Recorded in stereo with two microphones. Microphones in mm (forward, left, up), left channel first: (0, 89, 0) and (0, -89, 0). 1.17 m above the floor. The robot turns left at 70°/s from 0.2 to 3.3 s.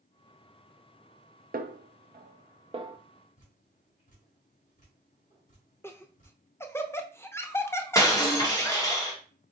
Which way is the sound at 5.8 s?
15° left (ahead or behind).